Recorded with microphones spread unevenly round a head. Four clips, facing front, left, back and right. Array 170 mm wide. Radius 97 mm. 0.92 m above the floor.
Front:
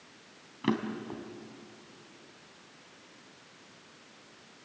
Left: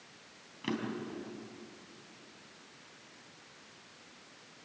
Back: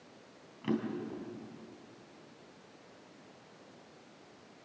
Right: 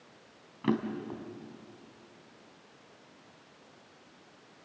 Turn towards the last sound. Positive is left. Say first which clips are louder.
# right 6 dB, front 3 dB
turn(degrees=-10)